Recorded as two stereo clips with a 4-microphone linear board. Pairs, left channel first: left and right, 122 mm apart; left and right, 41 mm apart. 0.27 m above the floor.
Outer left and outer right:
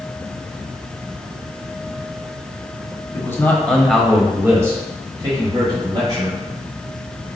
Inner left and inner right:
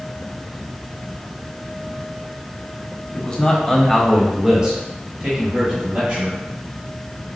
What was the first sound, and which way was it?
A man speaking, 20° left (ahead or behind).